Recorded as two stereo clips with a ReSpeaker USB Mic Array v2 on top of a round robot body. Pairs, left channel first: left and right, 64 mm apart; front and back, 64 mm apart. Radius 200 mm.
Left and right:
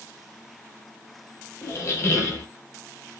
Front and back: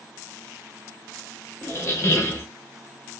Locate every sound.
1.6 s a squeak: 45° left, 1.0 m